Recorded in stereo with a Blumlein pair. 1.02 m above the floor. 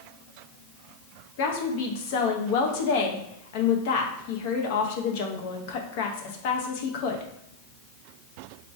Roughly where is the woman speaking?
Ahead left.